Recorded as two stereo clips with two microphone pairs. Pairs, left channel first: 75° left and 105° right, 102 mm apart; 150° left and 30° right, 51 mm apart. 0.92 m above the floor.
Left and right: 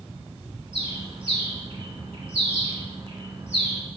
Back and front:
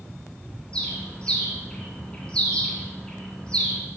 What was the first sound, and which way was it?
A bird, 135° right.